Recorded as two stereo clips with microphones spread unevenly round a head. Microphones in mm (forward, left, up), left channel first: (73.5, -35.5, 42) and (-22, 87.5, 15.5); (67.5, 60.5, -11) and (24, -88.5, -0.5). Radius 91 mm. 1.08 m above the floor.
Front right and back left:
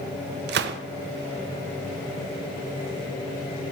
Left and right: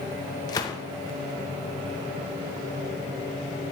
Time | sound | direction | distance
0.5 | a gunshot | 145° left | 0.5 m